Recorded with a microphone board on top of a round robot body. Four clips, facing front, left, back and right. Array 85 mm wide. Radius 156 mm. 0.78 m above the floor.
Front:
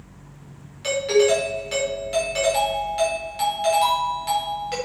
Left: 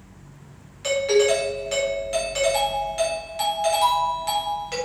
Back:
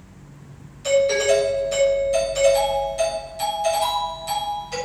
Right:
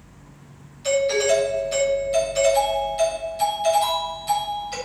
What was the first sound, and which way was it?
A doorbell, 55° left.